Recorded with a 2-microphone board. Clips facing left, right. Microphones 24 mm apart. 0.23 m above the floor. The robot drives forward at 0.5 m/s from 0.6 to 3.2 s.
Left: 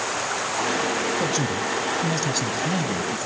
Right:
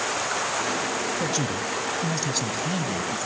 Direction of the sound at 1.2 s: Centre (ahead or behind).